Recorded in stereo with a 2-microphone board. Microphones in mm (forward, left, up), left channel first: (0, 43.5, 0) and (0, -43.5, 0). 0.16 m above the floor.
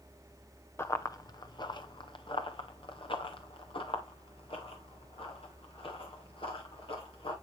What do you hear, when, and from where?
0.8 s running footsteps: 30° left (ahead or behind), 0.7 m; by 7.3 s 90° left, 4 m